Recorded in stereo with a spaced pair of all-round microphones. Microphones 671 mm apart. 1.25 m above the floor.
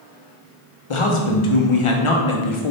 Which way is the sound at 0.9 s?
50° left (ahead or behind).